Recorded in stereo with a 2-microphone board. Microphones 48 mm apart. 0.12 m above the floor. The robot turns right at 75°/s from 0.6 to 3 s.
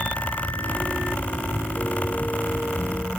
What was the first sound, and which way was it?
Only background noise.